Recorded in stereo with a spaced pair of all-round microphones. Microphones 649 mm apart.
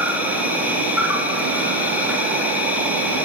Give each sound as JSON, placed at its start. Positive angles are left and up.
{"t": 0.0, "sound": "an insect", "side_deg": -5, "distance_m": 4.0}